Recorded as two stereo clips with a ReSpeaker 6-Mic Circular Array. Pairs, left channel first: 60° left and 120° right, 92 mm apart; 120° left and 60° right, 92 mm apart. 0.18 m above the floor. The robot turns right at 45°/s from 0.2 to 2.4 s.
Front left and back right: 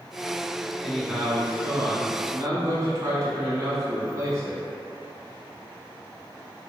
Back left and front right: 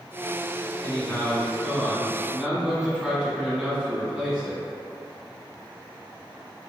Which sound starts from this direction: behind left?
A man speaking, at 0.8 s.